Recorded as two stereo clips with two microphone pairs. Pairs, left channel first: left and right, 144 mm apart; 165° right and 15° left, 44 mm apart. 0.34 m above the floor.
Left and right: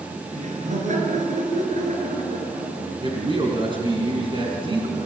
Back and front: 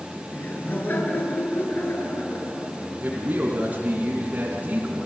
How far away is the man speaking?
About 3.5 m.